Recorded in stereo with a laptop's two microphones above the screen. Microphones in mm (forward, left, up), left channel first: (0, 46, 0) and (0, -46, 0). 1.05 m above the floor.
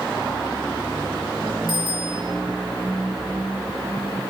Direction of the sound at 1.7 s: 60° right (ahead or behind).